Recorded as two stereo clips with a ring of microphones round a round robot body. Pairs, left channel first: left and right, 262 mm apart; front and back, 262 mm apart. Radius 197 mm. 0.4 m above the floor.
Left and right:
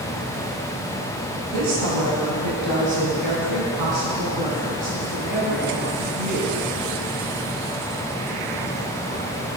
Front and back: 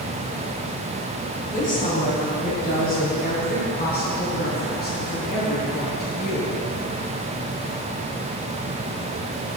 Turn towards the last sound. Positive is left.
turn(degrees=-65)